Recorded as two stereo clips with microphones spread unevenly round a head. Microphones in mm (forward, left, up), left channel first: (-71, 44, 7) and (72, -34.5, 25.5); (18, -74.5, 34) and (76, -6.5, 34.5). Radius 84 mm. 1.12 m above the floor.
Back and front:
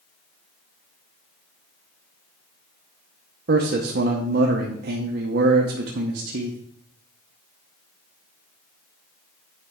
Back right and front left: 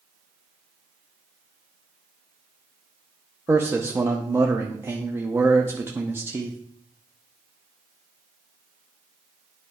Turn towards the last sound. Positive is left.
turn(degrees=-15)